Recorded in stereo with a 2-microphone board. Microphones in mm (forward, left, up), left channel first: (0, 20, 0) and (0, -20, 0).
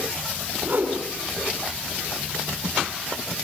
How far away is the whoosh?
About 7.5 m.